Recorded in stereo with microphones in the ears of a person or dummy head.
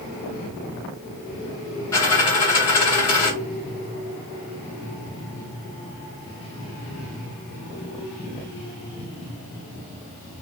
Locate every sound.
1.9 s a dropped coin: 15° left (ahead or behind), 0.9 m